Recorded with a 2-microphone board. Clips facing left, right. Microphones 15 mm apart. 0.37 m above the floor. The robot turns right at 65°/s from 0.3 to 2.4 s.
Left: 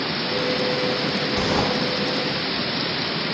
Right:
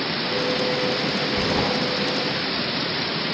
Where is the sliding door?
80° left, 5.5 m.